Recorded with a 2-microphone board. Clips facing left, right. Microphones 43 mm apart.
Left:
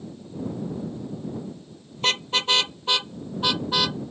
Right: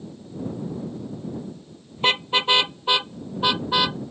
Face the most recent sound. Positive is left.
turn(degrees=-15)  # may be behind; listen again after turning